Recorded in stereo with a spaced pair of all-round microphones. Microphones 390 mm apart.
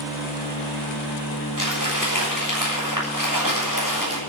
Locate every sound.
1.6 s crumpling: 55° right (ahead or behind), 7 m